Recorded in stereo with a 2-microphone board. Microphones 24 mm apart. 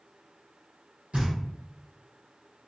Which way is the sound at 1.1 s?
70° right (ahead or behind).